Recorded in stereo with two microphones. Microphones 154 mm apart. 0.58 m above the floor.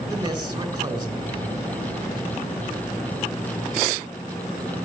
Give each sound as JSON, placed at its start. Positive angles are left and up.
{"t": 0.1, "sound": "a man speaking", "side_deg": -25, "distance_m": 2.5}